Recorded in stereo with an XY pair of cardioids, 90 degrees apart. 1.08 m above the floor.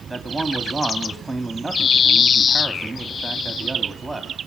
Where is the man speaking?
5° right, 3 m.